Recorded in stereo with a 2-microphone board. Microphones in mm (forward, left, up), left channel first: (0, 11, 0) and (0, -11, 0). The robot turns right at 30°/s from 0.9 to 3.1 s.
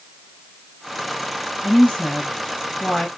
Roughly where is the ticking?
I don't hear ticking.